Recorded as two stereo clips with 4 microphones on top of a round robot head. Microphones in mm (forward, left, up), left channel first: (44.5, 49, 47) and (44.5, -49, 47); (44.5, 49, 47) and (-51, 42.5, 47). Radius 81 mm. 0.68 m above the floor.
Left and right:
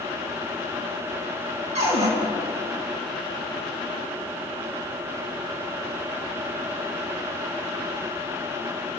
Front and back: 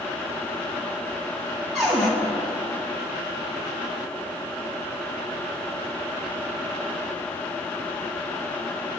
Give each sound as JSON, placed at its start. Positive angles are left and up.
{"t": 1.8, "sound": "a cupboard door", "azimuth_deg": -85, "distance_m": 4.5}